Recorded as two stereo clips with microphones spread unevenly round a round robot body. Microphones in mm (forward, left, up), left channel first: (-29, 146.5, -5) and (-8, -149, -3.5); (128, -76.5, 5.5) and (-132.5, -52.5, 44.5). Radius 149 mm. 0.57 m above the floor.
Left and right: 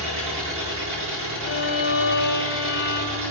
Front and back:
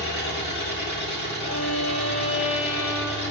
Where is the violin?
35° left, 3.5 m.